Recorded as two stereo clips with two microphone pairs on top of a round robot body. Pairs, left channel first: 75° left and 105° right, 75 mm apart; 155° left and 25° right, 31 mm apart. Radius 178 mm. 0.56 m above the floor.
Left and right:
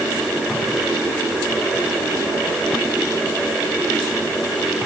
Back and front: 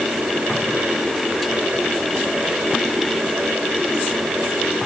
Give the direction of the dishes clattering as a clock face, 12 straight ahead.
I don't hear dishes clattering.